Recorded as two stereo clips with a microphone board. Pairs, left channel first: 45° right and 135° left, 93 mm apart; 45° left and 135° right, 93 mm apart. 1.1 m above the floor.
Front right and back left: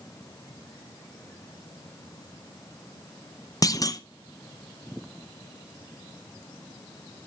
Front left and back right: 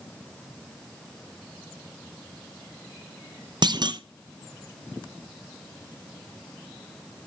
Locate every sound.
3.6 s a clunk: 95° right, 0.5 m